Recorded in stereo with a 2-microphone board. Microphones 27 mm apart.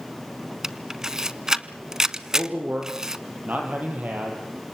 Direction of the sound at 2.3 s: 80° right.